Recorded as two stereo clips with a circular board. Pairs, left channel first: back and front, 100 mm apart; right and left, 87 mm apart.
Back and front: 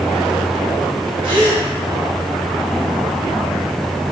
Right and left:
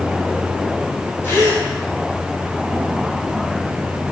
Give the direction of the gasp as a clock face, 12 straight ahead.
1 o'clock.